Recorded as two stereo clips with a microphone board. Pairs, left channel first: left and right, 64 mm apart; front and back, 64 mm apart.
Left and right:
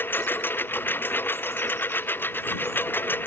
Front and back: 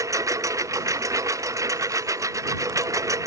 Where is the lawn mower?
150° left.